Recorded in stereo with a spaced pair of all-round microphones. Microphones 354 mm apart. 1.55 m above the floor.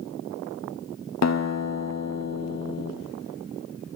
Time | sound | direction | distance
1.2 | a guitar | 50° left (ahead or behind) | 0.5 m